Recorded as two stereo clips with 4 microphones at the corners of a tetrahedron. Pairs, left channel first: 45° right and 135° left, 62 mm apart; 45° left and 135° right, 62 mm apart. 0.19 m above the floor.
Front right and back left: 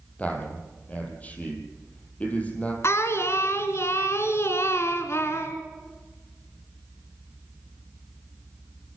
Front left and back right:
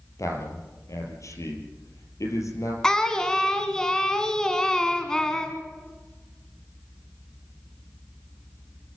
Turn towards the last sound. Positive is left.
turn(degrees=-30)